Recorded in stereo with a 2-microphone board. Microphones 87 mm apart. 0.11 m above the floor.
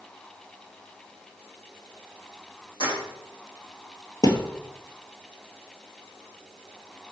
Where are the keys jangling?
75° left (ahead or behind), 3.5 m.